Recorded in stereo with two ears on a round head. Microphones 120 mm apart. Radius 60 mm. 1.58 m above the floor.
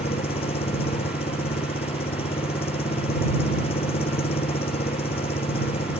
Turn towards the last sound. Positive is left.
turn(degrees=45)  # may be behind; listen again after turning